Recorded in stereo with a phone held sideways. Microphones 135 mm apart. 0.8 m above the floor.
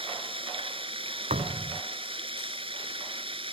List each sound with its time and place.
0.0 s running water: 40° right (ahead or behind)
1.3 s a thud: 60° right (ahead or behind)